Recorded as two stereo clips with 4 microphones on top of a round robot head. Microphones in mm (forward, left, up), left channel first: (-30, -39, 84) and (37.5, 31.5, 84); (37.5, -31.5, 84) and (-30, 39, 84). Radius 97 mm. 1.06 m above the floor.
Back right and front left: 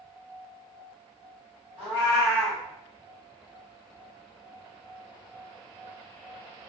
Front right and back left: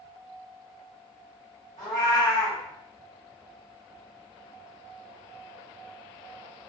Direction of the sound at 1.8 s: Straight ahead.